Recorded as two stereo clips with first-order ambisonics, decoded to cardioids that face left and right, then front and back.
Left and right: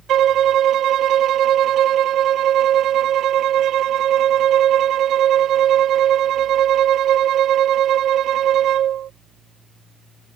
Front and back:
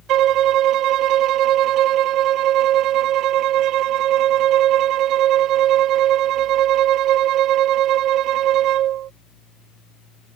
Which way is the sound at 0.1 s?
140° right.